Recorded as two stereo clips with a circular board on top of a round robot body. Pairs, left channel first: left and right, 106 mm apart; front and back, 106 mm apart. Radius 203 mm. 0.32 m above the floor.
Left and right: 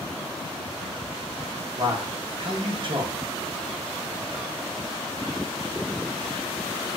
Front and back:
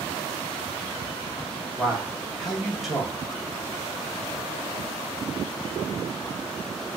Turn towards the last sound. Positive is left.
turn(degrees=-90)